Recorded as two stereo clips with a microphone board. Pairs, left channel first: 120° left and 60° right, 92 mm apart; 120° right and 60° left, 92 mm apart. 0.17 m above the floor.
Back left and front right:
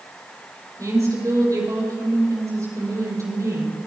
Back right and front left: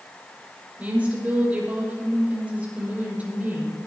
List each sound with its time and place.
0.8 s a woman speaking: 10° right, 6 m